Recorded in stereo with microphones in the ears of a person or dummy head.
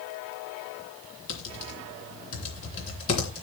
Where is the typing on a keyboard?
40° left (ahead or behind), 3 m.